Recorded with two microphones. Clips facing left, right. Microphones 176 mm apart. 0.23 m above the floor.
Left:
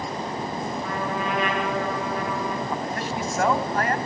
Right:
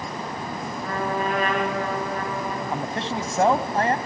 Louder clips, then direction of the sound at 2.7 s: Right 1 dB; 30° right (ahead or behind).